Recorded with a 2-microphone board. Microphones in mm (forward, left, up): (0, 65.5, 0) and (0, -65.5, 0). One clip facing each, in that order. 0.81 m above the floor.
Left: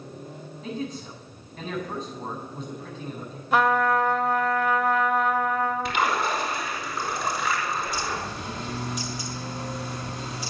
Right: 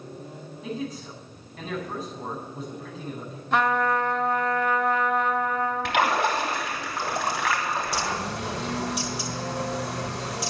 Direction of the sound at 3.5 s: 5° left (ahead or behind).